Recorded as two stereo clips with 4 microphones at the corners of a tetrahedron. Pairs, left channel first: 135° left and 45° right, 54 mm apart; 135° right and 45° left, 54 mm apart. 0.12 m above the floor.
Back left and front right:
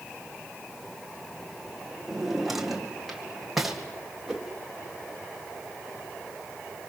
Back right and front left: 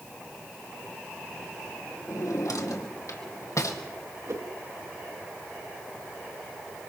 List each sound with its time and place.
2.1 s a drawer: 130° right, 2 m
4.3 s a whoosh: 40° left, 2 m